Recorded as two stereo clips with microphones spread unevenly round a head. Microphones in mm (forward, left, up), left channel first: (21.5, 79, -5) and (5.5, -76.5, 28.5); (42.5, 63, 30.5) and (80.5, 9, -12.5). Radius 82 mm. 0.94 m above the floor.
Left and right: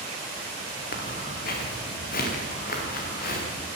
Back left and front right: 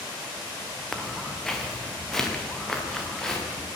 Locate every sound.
0.9 s footsteps: 50° left, 4.5 m